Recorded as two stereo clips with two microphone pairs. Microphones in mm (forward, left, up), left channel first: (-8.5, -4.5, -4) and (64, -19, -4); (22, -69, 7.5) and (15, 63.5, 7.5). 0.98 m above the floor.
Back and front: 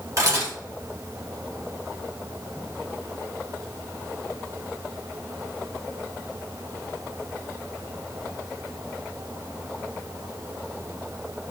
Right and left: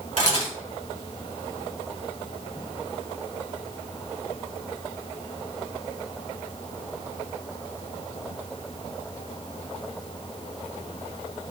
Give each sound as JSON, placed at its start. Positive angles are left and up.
{"t": 0.2, "sound": "a camera shutter", "azimuth_deg": -55, "distance_m": 1.9}